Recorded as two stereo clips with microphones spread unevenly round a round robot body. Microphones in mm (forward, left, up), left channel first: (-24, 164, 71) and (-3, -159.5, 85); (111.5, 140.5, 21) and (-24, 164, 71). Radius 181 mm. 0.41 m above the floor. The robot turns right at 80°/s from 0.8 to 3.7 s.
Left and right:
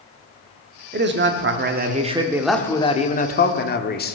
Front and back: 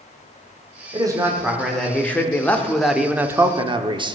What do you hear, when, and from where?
0.9 s a man speaking: 115° right, 0.9 m; by 4.2 s 105° left, 0.9 m